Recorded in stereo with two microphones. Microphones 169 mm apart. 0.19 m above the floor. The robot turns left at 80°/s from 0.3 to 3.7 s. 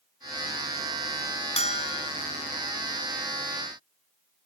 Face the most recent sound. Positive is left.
turn(degrees=-75)